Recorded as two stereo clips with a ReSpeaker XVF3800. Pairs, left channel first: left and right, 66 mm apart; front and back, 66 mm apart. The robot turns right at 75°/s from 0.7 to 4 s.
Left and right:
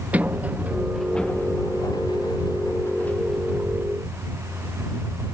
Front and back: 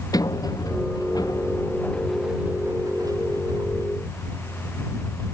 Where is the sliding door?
20° right; by 4.0 s 135° right.